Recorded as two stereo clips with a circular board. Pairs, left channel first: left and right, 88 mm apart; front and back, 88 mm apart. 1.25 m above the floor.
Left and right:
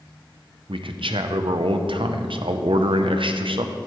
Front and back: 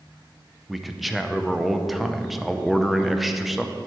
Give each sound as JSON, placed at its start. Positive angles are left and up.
{"t": 0.7, "sound": "a man speaking", "azimuth_deg": -90, "distance_m": 0.7}